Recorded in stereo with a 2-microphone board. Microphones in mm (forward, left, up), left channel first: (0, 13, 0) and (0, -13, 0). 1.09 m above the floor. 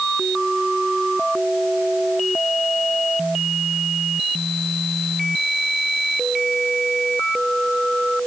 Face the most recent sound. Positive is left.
No sound to turn to.